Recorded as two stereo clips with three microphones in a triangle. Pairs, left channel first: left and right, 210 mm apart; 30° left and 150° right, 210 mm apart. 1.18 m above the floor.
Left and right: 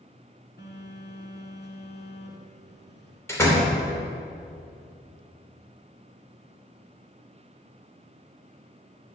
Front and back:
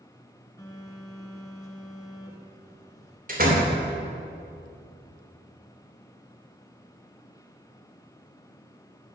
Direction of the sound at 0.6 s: 100° left.